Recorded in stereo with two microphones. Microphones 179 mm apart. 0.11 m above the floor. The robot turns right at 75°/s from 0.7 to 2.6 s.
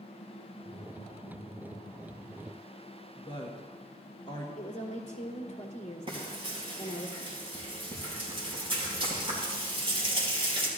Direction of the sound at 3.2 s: 30° left (ahead or behind).